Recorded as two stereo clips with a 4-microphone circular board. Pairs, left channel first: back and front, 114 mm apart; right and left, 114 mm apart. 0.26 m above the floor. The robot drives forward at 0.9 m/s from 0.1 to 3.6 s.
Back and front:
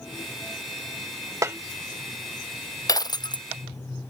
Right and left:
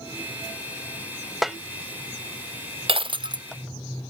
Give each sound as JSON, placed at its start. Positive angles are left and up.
{"t": 1.4, "sound": "a snare drum", "azimuth_deg": 5}
{"t": 2.9, "sound": "breaking glass", "azimuth_deg": 125}